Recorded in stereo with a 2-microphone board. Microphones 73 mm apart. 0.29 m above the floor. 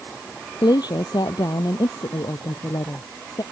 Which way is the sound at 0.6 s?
70° left (ahead or behind).